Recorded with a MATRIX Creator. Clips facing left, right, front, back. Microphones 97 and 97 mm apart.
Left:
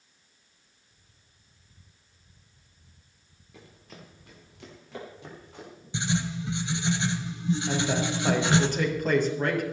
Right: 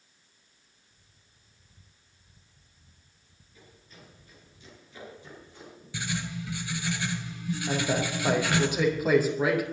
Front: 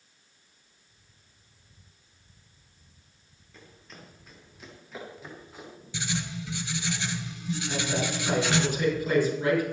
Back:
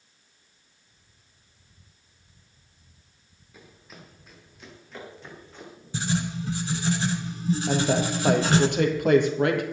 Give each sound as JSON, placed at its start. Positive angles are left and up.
{"t": 3.5, "sound": "running footsteps", "azimuth_deg": 100, "distance_m": 4.5}
{"t": 5.9, "sound": "writing", "azimuth_deg": 145, "distance_m": 1.4}
{"t": 7.7, "sound": "a woman speaking", "azimuth_deg": -170, "distance_m": 3.5}